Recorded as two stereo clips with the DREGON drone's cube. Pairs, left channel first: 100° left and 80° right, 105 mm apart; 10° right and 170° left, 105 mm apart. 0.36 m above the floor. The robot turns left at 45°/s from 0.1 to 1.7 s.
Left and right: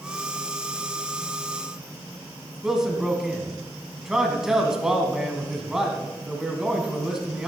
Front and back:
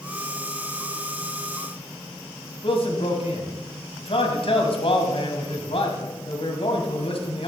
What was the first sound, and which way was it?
A man speaking, 5° left.